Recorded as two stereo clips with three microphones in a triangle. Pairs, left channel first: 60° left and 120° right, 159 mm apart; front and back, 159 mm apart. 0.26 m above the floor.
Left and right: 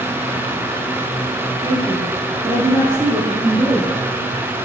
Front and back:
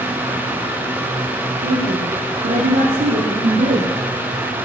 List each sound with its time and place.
1.6 s a woman speaking: straight behind, 10 m